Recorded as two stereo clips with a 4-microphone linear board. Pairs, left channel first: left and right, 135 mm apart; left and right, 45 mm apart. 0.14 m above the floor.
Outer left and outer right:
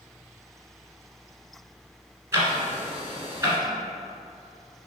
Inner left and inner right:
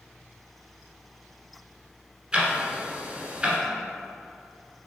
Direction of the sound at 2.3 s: 20° right (ahead or behind).